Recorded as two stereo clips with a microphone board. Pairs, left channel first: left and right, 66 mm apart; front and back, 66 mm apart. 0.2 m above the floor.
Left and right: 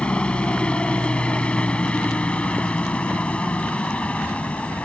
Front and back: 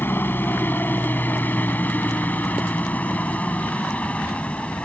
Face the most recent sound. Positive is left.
turn(degrees=50)